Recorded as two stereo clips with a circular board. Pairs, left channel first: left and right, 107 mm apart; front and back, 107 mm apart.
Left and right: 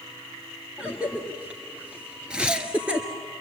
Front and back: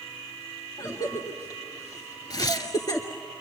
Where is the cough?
20° right, 1.9 m.